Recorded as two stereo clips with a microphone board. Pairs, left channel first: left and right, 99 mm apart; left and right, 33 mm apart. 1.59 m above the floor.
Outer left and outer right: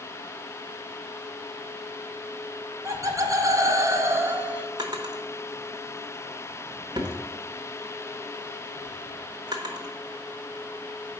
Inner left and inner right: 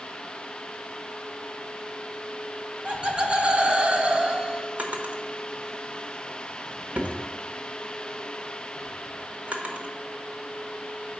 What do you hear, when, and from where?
2.9 s laughter: 30° right (ahead or behind), 1.1 m; by 4.7 s 10° right (ahead or behind), 0.6 m
4.8 s a drawer: 45° right (ahead or behind), 1.0 m